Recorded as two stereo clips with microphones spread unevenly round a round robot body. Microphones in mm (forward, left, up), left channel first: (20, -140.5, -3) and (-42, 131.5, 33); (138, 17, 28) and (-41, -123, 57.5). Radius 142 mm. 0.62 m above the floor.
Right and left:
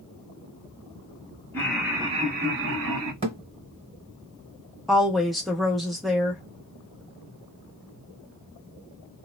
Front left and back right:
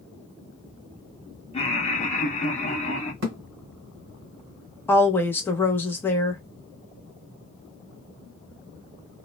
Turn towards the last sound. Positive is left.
turn(degrees=-5)